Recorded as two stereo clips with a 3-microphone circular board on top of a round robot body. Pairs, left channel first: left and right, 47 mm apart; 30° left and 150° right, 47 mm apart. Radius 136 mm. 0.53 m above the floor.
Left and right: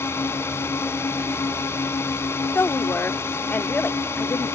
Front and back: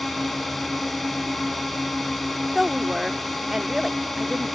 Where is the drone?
120° left.